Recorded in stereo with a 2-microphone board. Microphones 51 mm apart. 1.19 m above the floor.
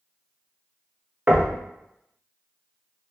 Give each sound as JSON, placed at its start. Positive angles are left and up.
{"t": 1.3, "sound": "knocking", "side_deg": -35, "distance_m": 0.5}